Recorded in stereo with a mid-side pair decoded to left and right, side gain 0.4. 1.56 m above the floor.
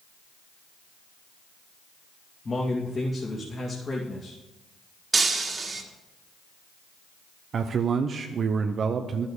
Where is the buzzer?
No buzzer in this recording.